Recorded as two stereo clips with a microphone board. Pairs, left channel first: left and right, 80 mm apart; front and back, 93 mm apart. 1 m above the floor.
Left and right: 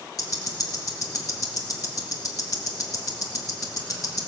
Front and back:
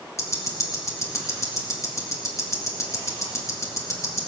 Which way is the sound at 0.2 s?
50° left.